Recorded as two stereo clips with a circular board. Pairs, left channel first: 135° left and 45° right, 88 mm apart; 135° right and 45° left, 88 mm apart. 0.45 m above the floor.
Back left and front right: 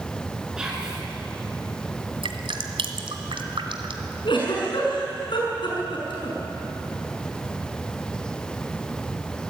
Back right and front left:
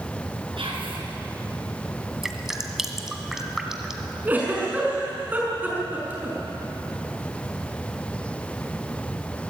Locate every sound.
0.6 s whispering: 35° left, 5.5 m
2.2 s dripping: 40° right, 1.9 m
4.2 s a giggle: 115° left, 5.5 m